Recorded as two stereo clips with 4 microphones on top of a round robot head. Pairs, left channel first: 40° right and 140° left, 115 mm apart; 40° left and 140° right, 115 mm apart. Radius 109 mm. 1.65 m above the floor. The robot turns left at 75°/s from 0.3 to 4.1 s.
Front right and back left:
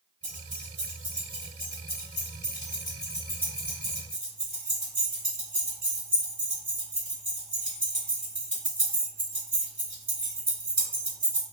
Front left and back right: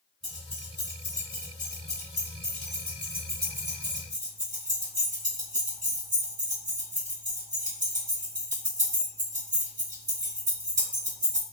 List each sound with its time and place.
0.2 s keys jangling: 130° left, 1.7 m; by 11.4 s 155° right, 1.7 m